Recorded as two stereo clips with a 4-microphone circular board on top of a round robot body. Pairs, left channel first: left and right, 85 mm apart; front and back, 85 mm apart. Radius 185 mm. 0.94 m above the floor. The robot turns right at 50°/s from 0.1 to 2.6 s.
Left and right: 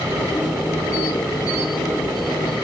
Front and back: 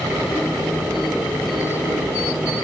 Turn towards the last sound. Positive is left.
No sound to turn to.